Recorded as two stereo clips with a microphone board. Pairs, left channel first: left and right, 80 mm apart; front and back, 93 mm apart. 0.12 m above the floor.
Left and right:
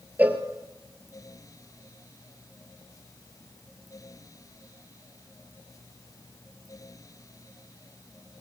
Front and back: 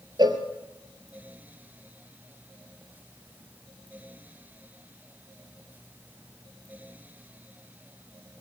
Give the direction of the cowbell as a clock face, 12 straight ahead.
5 o'clock.